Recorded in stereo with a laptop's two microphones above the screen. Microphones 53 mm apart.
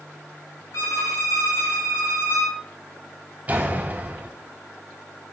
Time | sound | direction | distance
0.7 | a violin | 70° left (ahead or behind) | 4 m
3.5 | a door slam | 30° right (ahead or behind) | 3 m